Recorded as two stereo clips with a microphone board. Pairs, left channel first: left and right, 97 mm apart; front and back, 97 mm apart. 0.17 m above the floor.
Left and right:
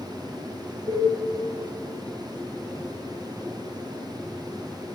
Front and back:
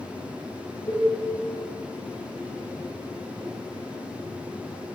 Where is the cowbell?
55° right, 3.5 m.